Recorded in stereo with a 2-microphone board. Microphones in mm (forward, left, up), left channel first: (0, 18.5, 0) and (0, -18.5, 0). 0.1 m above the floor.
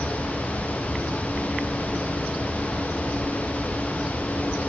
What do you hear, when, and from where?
Only background noise.